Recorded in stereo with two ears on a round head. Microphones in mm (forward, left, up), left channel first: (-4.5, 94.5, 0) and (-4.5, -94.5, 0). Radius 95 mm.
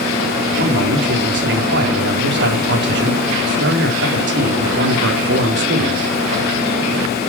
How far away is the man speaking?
About 3.5 m.